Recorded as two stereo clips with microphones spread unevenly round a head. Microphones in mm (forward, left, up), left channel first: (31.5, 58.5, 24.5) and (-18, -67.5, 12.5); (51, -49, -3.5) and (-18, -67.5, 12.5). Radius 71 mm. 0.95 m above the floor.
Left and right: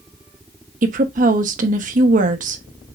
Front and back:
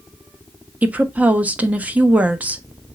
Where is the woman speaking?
90° right, 1.4 m.